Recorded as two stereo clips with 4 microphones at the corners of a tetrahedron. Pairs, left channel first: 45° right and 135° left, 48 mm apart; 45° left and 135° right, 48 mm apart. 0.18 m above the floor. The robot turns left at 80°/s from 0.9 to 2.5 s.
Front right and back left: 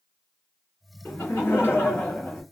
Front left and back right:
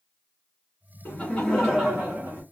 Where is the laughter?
15° left, 1.9 m; by 2.4 s 95° right, 1.9 m.